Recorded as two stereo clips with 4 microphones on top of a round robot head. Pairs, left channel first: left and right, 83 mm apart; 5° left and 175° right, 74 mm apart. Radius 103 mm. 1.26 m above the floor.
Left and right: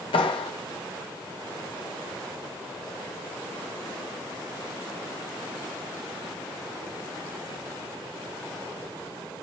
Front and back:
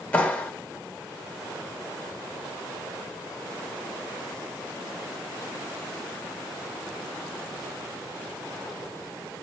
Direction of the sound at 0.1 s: 75° left.